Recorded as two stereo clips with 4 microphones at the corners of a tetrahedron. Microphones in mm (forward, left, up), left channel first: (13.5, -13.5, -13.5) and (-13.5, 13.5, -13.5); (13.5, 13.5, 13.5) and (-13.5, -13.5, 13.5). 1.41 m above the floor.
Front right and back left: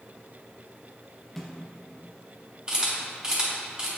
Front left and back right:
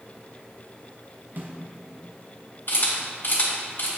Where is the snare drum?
130° right, 0.9 m.